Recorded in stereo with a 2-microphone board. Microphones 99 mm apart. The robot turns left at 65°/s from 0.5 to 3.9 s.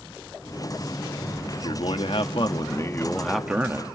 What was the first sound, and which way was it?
A man speaking, 120° left.